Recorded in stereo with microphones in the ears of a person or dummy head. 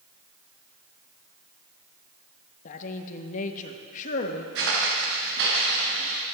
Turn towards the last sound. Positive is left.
turn(degrees=-70)  # may be behind; listen again after turning